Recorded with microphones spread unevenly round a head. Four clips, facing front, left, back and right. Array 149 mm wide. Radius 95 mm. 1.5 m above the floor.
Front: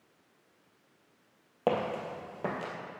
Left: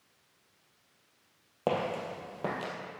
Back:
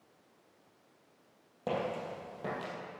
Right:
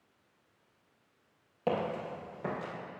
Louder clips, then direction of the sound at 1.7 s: Left 1 dB, front 5 dB; 30° left.